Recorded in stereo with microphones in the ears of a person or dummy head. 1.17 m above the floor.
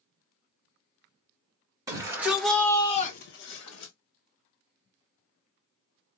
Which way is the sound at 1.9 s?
20° right (ahead or behind).